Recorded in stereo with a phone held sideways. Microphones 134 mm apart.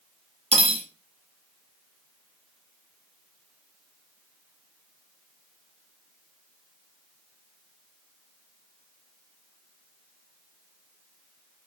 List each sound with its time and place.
0.5 s cutlery clinking: 50° right (ahead or behind), 0.5 m